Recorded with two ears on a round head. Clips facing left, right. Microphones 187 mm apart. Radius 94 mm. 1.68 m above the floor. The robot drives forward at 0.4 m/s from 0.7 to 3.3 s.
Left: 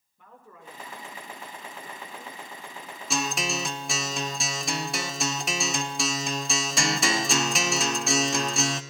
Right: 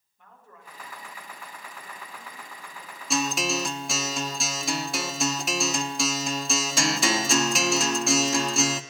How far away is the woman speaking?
About 6.5 m.